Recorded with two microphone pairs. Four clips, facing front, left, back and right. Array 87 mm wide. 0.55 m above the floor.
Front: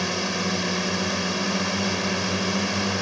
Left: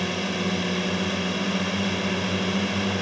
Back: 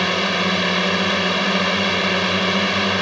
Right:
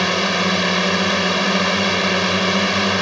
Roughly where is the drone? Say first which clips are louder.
Right 8 dB, back 6 dB; behind right.